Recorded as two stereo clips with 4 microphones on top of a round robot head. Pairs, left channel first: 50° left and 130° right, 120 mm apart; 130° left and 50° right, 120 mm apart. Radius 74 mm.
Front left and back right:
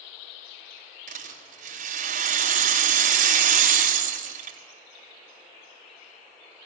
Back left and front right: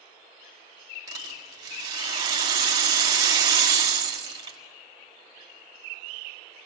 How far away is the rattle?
About 4 m.